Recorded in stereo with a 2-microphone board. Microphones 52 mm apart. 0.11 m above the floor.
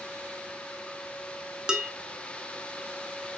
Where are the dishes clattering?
15° right (ahead or behind), 0.7 m.